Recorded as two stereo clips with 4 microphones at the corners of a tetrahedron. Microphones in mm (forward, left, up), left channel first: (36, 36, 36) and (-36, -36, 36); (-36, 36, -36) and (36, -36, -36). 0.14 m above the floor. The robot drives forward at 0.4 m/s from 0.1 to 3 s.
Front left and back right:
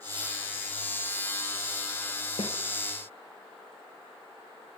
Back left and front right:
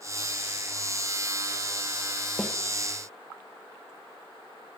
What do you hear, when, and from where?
2.4 s a snare drum: 45° left, 3.5 m